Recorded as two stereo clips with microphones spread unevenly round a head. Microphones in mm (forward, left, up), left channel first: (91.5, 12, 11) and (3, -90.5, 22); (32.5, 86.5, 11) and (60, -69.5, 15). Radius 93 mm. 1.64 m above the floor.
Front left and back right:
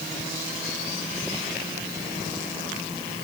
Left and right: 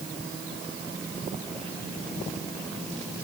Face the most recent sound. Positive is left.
No sound to turn to.